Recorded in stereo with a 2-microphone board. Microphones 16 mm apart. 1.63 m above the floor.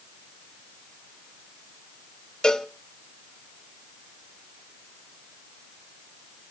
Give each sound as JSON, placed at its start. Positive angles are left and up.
{"t": 2.4, "sound": "a cowbell", "side_deg": 55, "distance_m": 0.8}